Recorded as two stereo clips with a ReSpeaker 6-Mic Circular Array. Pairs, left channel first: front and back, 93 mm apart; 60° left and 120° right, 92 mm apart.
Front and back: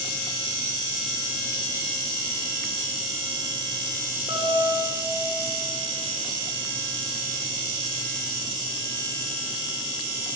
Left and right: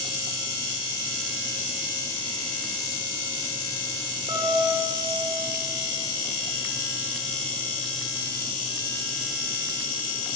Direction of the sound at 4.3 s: 160° right.